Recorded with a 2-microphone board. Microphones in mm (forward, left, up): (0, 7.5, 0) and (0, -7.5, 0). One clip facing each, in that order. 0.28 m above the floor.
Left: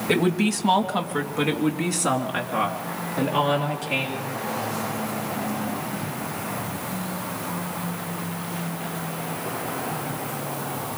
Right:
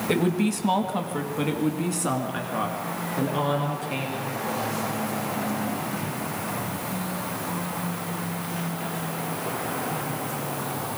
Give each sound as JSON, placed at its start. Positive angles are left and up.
{"t": 0.1, "sound": "a woman speaking", "side_deg": 20, "distance_m": 1.3}